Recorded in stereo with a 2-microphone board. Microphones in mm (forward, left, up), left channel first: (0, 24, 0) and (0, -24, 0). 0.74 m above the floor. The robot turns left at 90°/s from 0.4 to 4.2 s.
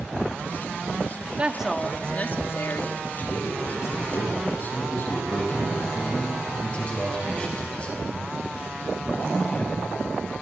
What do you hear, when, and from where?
1.4 s a woman speaking: 145° right, 1.6 m; by 3.0 s 65° left, 1.6 m
3.2 s a man speaking: 140° left, 7.5 m; by 5.8 s 50° left, 7.5 m
6.0 s a man speaking: 30° left (ahead or behind), 5.5 m